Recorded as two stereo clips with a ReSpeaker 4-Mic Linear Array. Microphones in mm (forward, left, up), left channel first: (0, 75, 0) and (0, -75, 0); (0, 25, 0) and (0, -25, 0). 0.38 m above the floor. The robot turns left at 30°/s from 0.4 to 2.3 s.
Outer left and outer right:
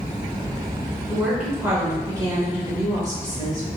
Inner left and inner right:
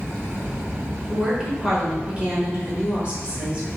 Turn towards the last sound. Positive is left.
turn(degrees=-45)